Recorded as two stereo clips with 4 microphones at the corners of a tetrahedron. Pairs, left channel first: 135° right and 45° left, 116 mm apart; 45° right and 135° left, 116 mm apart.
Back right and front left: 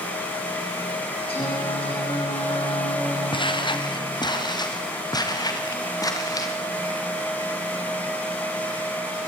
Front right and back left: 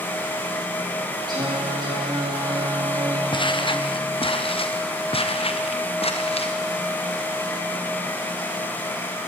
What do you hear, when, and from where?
1.3 s singing: 170° right, 9.5 m
3.3 s footsteps: 90° right, 2.5 m; by 6.5 s 75° right, 5 m